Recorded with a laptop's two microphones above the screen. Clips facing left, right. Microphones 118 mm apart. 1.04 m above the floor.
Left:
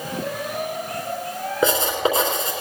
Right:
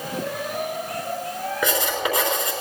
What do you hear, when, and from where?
1.6 s writing: 30° left (ahead or behind), 3.5 m